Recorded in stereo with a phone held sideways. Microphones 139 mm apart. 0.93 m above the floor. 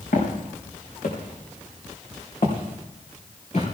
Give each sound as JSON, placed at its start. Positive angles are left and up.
{"t": 0.1, "sound": "footsteps", "side_deg": 75, "distance_m": 4.0}